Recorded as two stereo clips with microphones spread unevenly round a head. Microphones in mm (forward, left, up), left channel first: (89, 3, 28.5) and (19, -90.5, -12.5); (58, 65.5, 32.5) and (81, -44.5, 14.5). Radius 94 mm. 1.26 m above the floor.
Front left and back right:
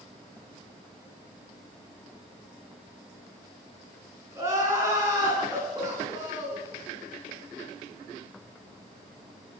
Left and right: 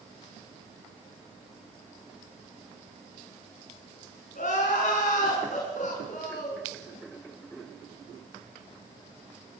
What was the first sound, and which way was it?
Crying, 155° left.